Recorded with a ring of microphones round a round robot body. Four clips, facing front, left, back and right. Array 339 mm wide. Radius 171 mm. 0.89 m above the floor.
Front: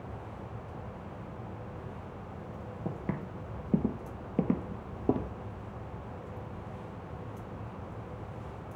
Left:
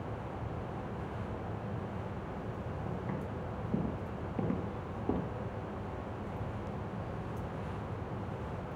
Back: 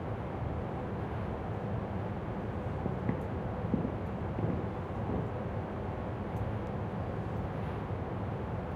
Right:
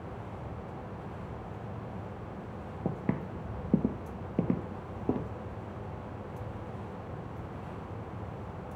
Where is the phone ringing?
I don't hear a phone ringing.